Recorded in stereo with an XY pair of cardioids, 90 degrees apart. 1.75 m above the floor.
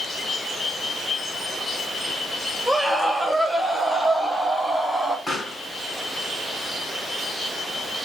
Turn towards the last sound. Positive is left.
turn(degrees=35)